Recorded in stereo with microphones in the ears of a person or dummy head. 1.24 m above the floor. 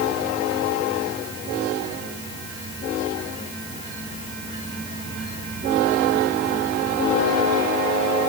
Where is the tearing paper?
No tearing paper in this recording.